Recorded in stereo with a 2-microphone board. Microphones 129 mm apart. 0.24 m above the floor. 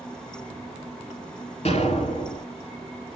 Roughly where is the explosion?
Left.